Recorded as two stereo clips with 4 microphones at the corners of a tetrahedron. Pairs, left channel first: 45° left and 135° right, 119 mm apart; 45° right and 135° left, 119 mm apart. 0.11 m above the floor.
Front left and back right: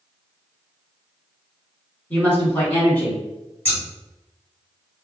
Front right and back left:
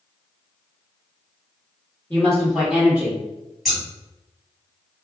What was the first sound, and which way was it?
A woman speaking, 5° right.